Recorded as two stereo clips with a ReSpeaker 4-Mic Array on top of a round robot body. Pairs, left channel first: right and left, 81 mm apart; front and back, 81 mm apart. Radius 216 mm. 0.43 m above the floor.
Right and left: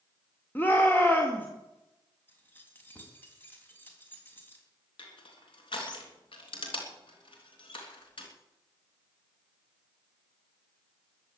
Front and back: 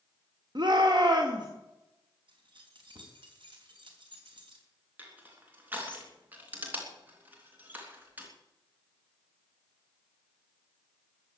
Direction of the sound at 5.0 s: 110° right.